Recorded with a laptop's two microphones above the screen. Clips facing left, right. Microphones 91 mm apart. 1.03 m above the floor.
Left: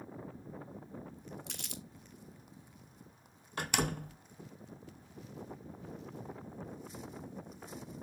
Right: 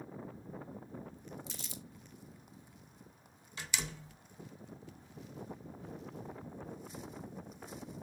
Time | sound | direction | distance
1.5 | crumpling | 65° left (ahead or behind) | 1.4 m
3.6 | a door slam | 55° left (ahead or behind) | 0.6 m